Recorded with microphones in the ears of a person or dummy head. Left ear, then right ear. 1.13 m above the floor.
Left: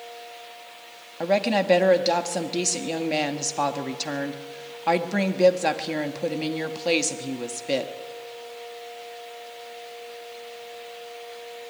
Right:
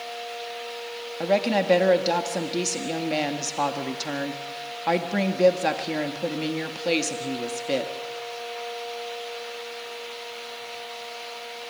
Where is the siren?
I don't hear a siren.